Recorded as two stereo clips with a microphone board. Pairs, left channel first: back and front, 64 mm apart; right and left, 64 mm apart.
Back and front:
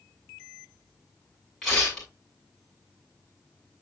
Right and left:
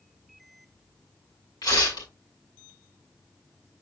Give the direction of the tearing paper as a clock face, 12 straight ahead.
3 o'clock.